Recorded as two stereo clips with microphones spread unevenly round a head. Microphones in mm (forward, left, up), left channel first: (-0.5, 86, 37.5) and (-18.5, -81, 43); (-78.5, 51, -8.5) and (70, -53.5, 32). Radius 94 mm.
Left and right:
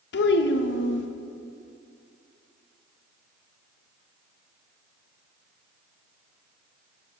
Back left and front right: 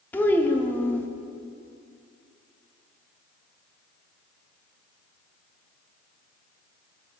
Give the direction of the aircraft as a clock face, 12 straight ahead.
I don't hear an aircraft.